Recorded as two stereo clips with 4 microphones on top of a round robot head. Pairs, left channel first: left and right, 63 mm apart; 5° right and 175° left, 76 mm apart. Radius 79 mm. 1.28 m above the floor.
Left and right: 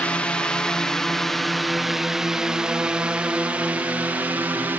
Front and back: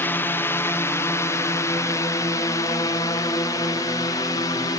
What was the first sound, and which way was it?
A drone, 35° left.